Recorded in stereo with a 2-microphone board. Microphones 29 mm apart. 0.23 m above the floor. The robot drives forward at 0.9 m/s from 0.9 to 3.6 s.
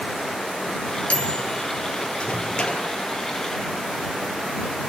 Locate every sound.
1.1 s a microwave: 50° left (ahead or behind), 2.5 m; by 2.9 s 30° left (ahead or behind), 4 m